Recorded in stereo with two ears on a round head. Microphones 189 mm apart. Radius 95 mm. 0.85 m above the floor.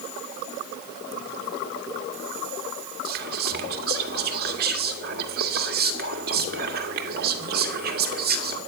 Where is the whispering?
45° right (ahead or behind), 1.8 m.